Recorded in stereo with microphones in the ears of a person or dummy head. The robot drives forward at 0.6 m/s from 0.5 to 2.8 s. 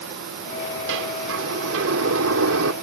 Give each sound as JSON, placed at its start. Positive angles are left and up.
{"t": 0.9, "sound": "a sliding door", "side_deg": -70}